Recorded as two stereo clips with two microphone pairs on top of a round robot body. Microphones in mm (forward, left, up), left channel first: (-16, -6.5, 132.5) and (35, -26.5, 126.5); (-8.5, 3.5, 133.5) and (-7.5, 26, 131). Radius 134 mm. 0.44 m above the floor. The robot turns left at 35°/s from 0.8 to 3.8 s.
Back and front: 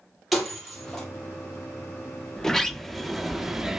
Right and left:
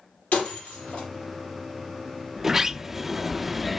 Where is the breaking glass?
115° right, 5 m; by 1.1 s 125° right, 5 m.